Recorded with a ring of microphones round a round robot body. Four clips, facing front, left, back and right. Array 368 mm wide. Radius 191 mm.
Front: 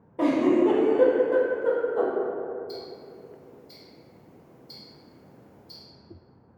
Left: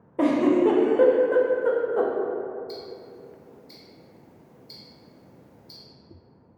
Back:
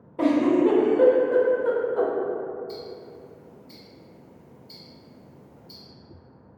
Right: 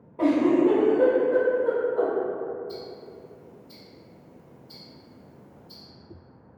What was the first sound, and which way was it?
A giggle, 95° left.